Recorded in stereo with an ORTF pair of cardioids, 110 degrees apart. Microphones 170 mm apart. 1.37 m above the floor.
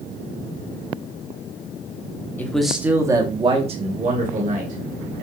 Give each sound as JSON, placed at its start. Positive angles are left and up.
{"t": 2.4, "sound": "a man speaking", "azimuth_deg": 10, "distance_m": 0.8}